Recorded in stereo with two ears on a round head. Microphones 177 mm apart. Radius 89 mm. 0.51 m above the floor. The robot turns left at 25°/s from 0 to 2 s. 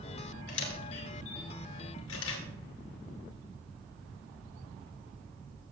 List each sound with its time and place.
0.5 s a camera shutter: 65° left (ahead or behind), 2 m; by 2.4 s 80° left, 2 m